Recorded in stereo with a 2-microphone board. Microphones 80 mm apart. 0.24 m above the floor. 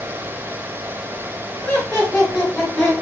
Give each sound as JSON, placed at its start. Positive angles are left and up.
{"t": 1.6, "sound": "laughter", "side_deg": 15, "distance_m": 2.0}